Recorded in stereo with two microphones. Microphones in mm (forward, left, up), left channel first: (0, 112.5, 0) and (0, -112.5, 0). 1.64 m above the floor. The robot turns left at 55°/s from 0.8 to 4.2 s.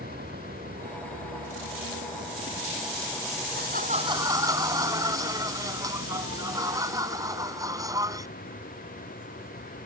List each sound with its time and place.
0.0 s a vehicle: 45° right; by 9.9 s 130° left
3.5 s laughter: 130° right; by 8.3 s 165° right